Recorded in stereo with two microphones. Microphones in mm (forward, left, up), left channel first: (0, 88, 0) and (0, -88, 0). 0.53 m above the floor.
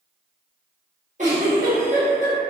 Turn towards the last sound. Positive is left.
turn(degrees=-45)  # may be behind; listen again after turning